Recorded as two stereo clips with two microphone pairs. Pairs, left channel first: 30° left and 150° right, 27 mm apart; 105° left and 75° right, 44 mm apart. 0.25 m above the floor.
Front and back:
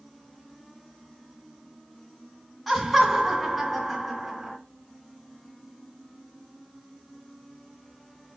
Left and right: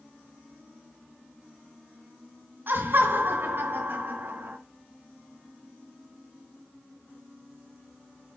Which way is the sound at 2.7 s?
60° right.